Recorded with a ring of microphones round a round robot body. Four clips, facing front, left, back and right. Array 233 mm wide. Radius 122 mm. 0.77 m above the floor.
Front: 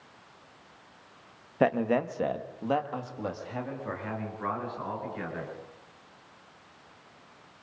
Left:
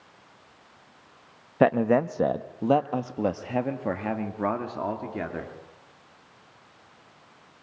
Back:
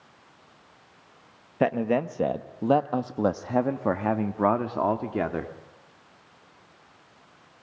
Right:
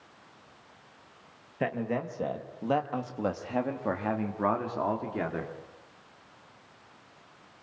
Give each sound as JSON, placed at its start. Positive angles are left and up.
{"t": 1.6, "sound": "a man speaking", "azimuth_deg": 100, "distance_m": 1.2}